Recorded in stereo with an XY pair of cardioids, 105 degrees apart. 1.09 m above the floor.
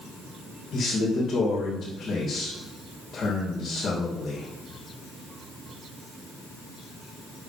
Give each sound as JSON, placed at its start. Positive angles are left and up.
{"t": 0.7, "sound": "a man speaking", "azimuth_deg": 55, "distance_m": 3.5}